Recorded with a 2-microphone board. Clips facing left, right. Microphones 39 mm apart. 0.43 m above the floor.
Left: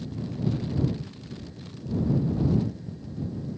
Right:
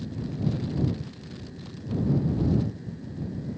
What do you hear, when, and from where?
Only background noise.